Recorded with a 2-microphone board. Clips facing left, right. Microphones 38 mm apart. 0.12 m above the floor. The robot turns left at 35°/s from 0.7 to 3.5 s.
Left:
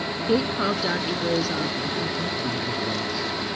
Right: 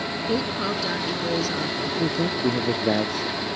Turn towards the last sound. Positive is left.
turn(degrees=-120)